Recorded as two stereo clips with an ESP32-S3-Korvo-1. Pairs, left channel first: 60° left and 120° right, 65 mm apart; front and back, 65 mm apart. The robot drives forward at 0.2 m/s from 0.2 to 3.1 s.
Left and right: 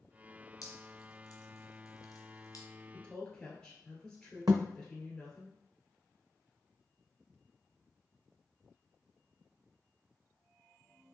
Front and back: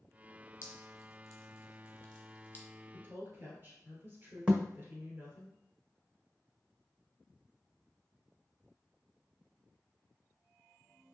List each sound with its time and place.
0.6 s dripping: 40° left, 1.1 m; by 2.7 s 60° left, 0.8 m
2.9 s a woman speaking: 135° left, 1.6 m; by 5.5 s 140° left, 1.6 m
4.5 s a thud: 105° right, 0.7 m